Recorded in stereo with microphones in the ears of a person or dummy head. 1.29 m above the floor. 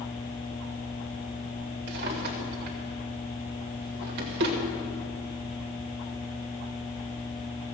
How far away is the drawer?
About 2 m.